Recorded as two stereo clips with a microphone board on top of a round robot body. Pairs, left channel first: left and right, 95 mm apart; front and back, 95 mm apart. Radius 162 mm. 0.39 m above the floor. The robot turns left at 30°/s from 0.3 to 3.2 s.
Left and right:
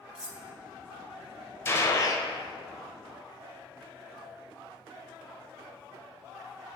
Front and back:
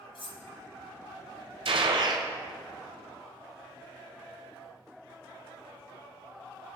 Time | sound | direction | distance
0.1 | cutlery clinking | 10° right | 1.1 m
1.6 | a gunshot | 155° left | 1.1 m